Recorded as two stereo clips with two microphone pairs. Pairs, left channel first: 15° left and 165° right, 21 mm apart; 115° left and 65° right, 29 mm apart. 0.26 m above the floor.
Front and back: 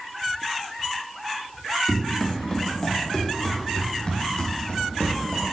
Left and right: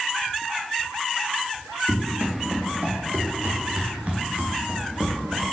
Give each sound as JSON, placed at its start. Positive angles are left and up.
{"t": 1.9, "sound": "running footsteps", "azimuth_deg": -50, "distance_m": 4.5}